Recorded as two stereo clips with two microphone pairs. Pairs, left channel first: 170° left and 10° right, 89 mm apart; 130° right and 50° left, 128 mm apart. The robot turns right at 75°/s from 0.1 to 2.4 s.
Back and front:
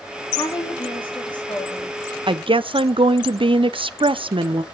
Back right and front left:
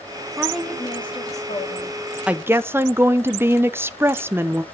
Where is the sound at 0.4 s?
125° left, 2 m; by 2.0 s 110° right, 2 m.